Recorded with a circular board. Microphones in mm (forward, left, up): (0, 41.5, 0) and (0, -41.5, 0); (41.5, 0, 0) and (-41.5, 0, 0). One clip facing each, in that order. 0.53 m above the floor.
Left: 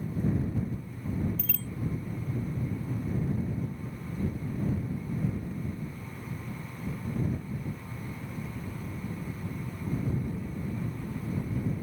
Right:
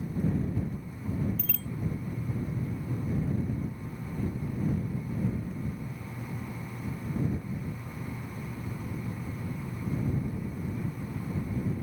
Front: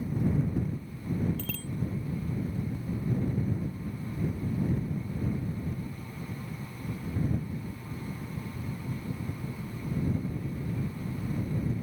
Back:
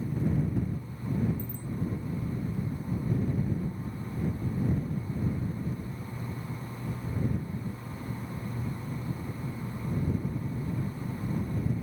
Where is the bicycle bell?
Straight ahead.